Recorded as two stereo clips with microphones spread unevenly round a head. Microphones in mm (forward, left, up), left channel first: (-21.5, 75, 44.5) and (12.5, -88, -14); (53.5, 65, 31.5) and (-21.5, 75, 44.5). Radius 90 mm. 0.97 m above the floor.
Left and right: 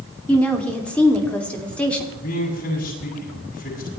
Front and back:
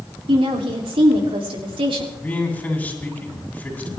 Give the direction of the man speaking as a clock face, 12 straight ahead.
10 o'clock.